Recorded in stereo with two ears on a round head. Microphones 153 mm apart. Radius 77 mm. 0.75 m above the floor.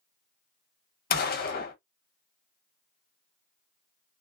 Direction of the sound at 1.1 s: 55° left (ahead or behind).